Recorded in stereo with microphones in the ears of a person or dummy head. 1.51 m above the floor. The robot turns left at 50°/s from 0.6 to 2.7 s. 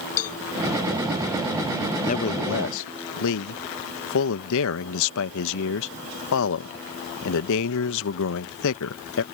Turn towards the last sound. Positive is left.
turn(degrees=110)